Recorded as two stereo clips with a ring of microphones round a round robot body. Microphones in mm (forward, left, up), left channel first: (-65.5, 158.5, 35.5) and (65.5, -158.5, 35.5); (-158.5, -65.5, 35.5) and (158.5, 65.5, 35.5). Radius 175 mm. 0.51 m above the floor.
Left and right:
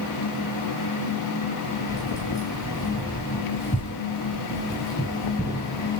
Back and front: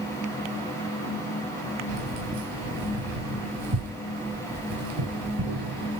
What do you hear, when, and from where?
1.9 s keys jangling: 30° left, 6 m